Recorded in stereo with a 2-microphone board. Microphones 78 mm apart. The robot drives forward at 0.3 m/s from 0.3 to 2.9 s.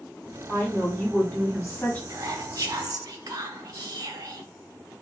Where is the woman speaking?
15° left (ahead or behind), 1.1 m; by 2.0 s 25° left (ahead or behind), 0.7 m.